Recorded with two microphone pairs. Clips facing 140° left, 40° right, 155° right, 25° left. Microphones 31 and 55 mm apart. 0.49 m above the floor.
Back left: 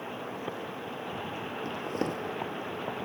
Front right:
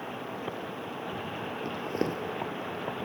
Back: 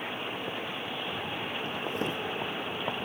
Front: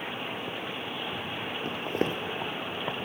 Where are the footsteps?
40° left, 0.7 m.